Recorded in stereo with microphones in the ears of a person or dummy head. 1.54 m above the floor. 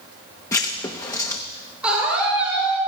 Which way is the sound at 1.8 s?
10° right (ahead or behind).